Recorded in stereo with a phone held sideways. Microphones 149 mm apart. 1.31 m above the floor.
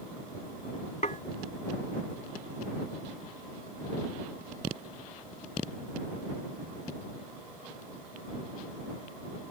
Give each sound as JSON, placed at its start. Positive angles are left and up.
{"t": 1.0, "sound": "dishes clattering", "side_deg": 55}